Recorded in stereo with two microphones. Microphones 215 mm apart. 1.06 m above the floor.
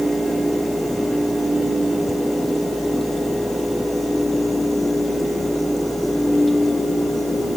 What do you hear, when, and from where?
Only background noise.